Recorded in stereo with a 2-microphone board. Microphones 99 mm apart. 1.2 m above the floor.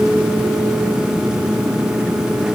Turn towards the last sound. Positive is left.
No sound to turn to.